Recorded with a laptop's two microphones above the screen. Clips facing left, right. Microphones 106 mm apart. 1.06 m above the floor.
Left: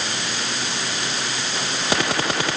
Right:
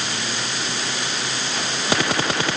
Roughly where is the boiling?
I don't hear boiling.